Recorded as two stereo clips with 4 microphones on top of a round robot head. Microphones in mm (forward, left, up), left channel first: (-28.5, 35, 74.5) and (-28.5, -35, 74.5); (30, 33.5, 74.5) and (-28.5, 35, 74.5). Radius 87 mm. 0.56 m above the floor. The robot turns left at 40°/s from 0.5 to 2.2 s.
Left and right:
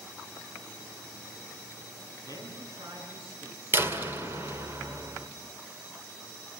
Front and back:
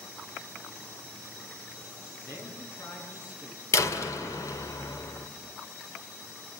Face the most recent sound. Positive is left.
turn(degrees=-30)